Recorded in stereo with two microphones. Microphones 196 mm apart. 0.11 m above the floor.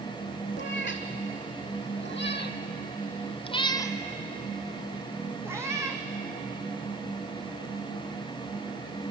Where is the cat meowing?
75° left (ahead or behind), 1.8 m; by 6.0 s 15° right (ahead or behind), 2 m.